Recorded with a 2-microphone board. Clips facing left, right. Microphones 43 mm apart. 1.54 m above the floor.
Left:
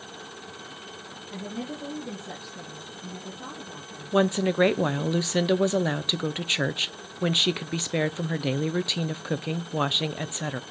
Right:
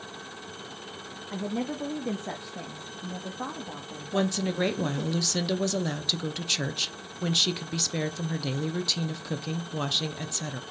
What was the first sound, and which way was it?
A woman speaking, 55° right (ahead or behind).